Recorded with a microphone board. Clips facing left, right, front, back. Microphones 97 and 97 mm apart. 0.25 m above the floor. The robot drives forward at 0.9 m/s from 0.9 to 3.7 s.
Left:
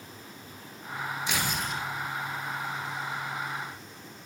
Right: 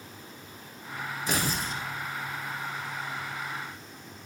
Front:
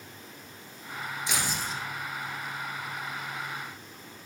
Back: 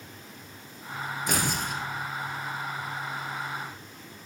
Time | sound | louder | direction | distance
1.3 | tearing paper | right 3 dB, back 4 dB | 135° right | 1.3 m